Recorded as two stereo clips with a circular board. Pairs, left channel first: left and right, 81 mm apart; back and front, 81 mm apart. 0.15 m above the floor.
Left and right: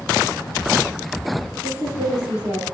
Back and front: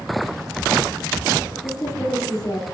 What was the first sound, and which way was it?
A woman speaking, 155° right.